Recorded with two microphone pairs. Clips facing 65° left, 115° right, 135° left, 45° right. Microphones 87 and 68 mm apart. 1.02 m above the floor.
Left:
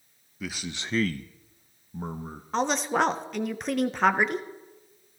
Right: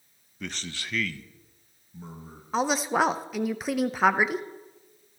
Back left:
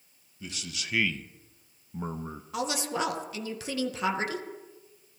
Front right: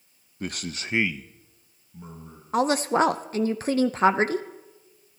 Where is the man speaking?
20° right, 0.8 m; by 2.4 s 100° left, 1.2 m.